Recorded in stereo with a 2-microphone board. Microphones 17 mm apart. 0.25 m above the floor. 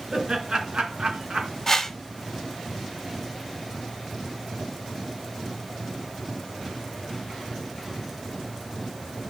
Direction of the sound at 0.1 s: 35° right (ahead or behind).